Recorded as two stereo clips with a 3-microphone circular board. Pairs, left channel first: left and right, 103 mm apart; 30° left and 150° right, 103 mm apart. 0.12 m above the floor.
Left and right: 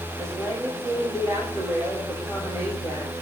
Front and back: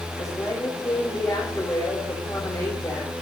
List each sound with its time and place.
0.2 s a woman speaking: 30° right, 5.5 m